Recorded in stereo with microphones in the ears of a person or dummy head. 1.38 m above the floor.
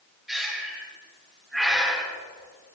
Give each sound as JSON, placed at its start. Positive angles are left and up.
{"t": 0.3, "sound": "breathing", "side_deg": 0, "distance_m": 3.0}